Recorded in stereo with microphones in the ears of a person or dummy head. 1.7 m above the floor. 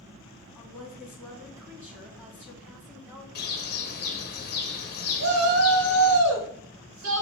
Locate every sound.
0.5 s a woman speaking: 15° right (ahead or behind), 2.5 m
3.4 s a bird: 50° left (ahead or behind), 0.6 m
5.2 s a shout: 80° right, 1.3 m